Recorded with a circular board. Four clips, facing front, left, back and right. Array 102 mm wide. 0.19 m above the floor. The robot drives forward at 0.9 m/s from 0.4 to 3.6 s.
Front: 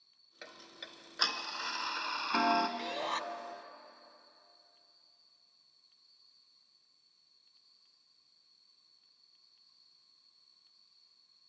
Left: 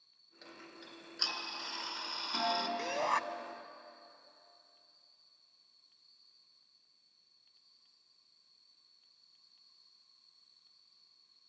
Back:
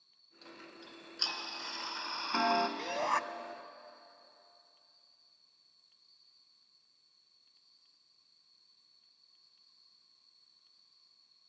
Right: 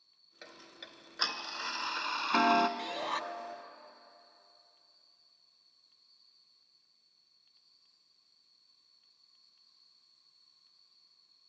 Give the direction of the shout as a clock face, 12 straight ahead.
9 o'clock.